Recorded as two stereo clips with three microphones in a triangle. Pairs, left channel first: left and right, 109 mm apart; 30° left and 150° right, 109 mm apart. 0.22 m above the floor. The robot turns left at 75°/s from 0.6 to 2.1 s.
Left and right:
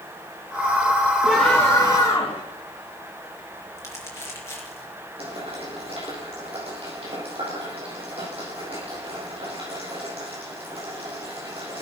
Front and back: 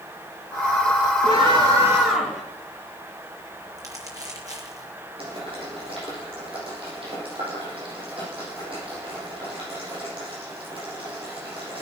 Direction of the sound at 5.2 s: 115° right.